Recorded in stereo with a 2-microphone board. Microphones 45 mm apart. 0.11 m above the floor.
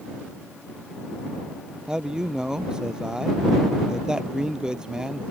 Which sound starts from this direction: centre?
A man speaking, at 1.9 s.